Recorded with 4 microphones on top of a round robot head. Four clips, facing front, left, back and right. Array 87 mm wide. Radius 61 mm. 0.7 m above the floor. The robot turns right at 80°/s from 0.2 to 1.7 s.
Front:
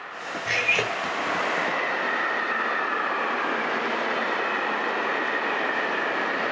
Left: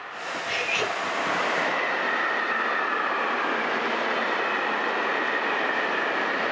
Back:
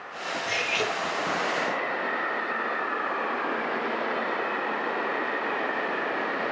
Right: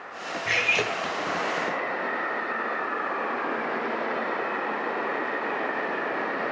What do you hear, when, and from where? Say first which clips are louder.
0.5 s cutlery clinking: right 2 dB, front 3 dB; 60° right, 1.9 m; by 0.9 s 20° right, 1.9 m